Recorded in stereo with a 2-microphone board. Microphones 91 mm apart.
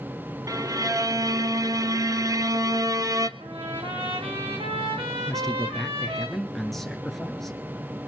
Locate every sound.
0.5 s a violin: 40° right (ahead or behind), 0.6 m
3.4 s a trumpet: 80° right, 3.5 m
5.3 s a man speaking: 5° left (ahead or behind), 1.8 m